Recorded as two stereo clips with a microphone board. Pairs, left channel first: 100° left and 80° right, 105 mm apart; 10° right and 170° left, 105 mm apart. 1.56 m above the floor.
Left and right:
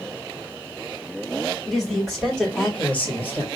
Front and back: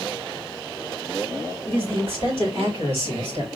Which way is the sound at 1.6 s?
175° right.